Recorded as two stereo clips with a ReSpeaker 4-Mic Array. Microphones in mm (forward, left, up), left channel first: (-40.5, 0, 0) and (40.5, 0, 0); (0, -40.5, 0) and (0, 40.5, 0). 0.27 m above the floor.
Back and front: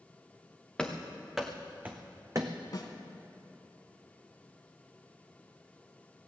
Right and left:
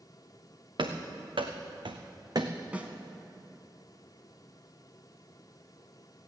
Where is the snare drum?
160° left, 1.5 m.